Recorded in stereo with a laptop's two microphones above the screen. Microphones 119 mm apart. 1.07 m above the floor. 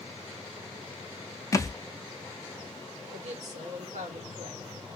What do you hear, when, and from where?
1.5 s a thud: 30° left (ahead or behind), 0.5 m
3.1 s a woman speaking: 75° right (ahead or behind), 1.4 m